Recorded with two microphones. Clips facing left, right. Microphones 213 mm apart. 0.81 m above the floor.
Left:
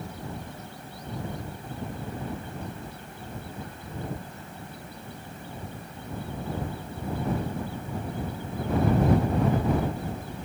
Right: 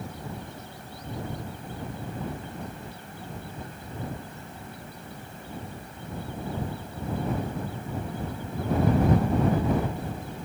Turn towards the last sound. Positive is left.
No sound to turn to.